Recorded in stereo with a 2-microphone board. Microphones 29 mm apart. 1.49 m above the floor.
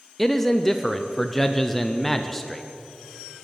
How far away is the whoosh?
I don't hear a whoosh.